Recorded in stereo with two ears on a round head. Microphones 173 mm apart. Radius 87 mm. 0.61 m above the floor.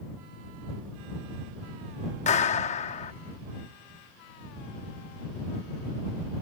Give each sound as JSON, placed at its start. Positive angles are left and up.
{"t": 2.3, "sound": "a clap", "side_deg": 35}